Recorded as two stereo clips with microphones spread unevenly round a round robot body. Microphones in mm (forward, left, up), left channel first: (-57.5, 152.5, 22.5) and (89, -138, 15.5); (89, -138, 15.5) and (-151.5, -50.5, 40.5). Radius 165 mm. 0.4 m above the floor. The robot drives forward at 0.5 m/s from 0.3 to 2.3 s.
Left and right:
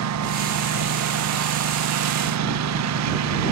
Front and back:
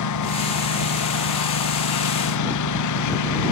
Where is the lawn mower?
20° right.